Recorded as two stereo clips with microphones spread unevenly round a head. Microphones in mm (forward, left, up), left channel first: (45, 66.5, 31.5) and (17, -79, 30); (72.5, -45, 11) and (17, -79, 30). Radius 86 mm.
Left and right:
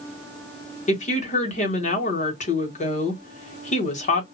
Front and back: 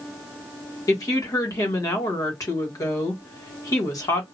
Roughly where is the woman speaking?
Ahead left.